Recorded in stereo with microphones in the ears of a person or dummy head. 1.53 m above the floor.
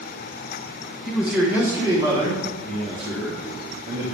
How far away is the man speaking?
About 2.0 m.